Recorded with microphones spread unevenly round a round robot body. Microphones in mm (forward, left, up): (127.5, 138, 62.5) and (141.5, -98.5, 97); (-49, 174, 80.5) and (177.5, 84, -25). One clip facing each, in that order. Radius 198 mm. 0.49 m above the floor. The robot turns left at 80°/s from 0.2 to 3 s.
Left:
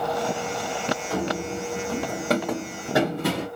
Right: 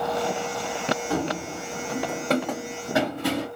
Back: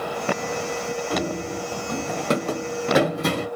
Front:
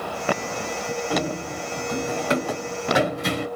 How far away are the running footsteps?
About 1.2 m.